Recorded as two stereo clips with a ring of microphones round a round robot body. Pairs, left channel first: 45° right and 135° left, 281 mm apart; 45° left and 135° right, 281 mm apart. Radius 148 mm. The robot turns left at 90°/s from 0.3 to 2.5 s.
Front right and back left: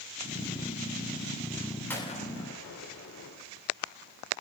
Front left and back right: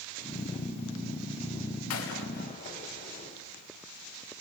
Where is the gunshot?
40° left, 2.5 m; by 3.4 s 15° right, 2.5 m.